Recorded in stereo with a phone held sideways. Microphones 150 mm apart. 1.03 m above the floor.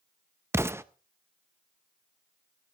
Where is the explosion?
15° right (ahead or behind), 0.5 m.